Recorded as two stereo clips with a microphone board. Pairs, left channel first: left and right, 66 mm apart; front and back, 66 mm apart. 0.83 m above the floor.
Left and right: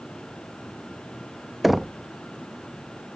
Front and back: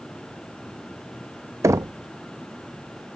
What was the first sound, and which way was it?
Knocking, straight behind.